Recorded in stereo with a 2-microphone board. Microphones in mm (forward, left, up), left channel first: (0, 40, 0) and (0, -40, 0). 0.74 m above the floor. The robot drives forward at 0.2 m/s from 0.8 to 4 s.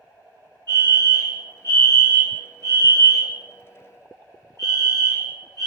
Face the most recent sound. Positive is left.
turn(degrees=35)  # may be behind; listen again after turning